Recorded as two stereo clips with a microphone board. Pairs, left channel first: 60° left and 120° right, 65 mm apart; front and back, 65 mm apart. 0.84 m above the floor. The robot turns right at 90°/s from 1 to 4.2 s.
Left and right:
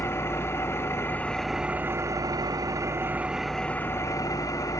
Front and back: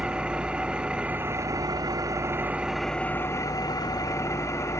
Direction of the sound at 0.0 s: 110° left.